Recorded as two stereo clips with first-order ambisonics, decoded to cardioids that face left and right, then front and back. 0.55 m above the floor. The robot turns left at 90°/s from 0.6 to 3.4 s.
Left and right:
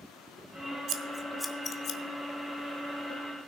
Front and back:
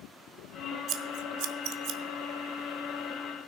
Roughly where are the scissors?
Behind right.